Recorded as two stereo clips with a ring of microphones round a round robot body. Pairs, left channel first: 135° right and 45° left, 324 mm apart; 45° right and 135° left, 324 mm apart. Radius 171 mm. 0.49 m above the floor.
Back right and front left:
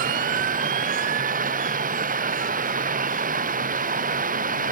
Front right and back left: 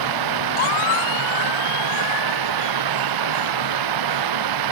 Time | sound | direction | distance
0.0 | running water | 110° left | ?